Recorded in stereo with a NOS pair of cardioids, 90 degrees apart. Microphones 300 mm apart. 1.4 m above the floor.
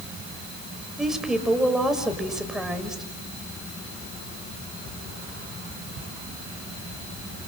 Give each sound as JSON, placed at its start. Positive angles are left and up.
{"t": 1.0, "sound": "a woman speaking", "azimuth_deg": 0, "distance_m": 6.0}